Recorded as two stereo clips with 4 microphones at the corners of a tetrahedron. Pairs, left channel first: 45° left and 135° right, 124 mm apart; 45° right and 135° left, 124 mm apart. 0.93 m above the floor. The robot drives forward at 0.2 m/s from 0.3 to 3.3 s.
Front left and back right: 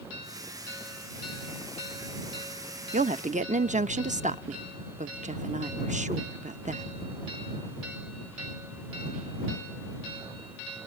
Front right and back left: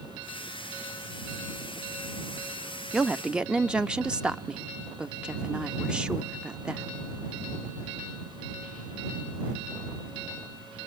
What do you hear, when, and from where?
2.9 s a woman speaking: 140° right, 0.7 m